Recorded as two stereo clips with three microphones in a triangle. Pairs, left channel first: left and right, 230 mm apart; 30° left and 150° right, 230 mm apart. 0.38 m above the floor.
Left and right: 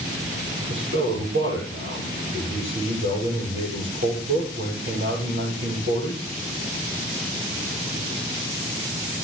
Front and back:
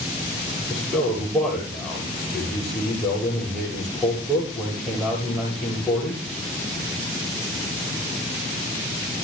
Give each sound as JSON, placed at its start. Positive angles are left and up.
{"t": 0.7, "sound": "a man speaking", "azimuth_deg": -55, "distance_m": 9.0}